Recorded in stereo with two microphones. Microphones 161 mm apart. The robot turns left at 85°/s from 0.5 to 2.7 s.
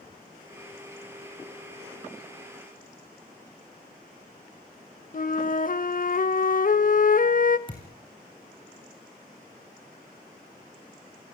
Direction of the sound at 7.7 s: 30° left (ahead or behind).